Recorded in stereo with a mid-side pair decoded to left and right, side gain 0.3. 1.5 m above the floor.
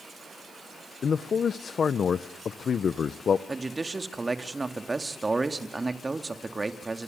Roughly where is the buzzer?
No buzzer in this recording.